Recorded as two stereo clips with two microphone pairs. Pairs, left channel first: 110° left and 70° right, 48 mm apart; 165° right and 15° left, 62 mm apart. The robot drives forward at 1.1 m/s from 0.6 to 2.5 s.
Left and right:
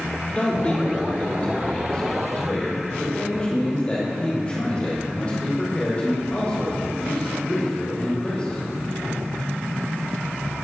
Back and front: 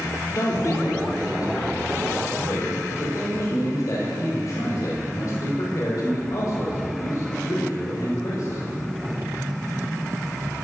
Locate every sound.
0.3 s a man speaking: 175° left, 5 m